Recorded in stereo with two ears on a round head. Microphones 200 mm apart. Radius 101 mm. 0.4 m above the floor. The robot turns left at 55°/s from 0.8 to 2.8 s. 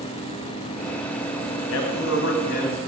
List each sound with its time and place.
1.7 s a man speaking: 90° left, 2.5 m; by 2.8 s 35° left, 2.5 m